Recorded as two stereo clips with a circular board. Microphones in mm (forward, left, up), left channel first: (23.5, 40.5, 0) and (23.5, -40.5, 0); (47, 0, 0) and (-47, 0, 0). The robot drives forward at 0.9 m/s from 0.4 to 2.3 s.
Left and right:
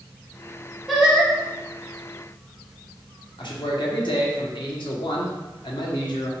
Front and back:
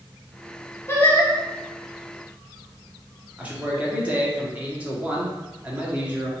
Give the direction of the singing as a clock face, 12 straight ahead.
12 o'clock.